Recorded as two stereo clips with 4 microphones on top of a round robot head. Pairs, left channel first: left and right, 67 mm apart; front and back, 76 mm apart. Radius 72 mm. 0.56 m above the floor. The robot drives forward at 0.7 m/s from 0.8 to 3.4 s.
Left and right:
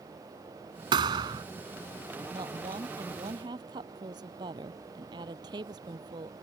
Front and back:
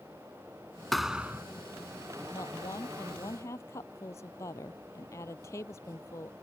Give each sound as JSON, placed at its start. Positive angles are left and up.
{"t": 0.9, "sound": "a thud", "azimuth_deg": -90}
{"t": 2.3, "sound": "a woman speaking", "azimuth_deg": -60}